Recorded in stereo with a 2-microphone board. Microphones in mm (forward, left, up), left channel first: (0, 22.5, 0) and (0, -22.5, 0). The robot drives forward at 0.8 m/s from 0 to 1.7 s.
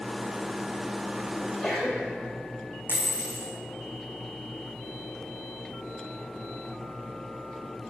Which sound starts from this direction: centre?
A sneeze, at 1.4 s.